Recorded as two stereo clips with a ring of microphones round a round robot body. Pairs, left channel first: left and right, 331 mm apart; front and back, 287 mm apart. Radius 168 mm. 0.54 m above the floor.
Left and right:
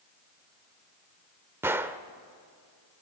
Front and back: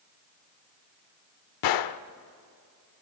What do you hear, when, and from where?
1.6 s a gunshot: 5° right, 0.6 m